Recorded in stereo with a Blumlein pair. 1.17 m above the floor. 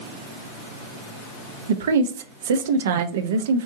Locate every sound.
1.7 s a woman speaking: 60° right, 0.6 m